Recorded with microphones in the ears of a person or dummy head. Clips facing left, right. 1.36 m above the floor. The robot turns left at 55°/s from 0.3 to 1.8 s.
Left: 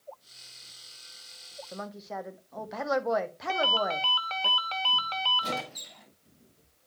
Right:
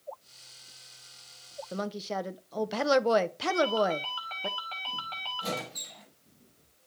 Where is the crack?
I don't hear a crack.